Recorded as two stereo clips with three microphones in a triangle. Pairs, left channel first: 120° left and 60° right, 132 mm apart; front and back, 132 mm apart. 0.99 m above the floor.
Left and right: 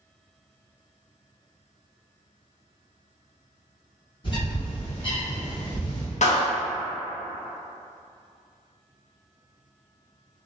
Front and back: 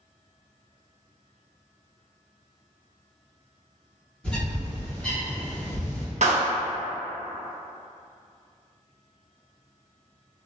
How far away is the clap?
About 0.5 m.